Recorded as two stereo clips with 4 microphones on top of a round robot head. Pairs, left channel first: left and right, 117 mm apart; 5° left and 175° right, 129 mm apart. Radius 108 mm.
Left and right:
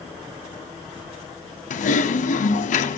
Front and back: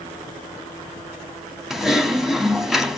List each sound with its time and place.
1.7 s typing on a keyboard: 95° left, 1.2 m